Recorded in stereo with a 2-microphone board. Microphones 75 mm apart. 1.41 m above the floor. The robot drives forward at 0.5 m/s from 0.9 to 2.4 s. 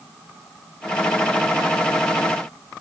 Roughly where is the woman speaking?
I don't hear a woman speaking.